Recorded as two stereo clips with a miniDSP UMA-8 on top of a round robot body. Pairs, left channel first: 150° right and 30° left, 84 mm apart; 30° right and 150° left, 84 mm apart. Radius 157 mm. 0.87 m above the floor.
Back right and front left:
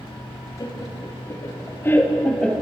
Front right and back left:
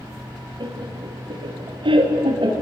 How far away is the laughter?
About 2.5 m.